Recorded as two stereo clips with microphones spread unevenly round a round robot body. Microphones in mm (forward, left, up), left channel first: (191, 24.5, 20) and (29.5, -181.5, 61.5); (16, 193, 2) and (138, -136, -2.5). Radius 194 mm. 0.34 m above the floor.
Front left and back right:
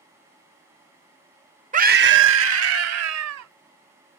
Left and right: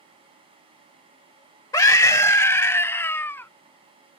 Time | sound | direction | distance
1.7 | a scream | 175° right | ?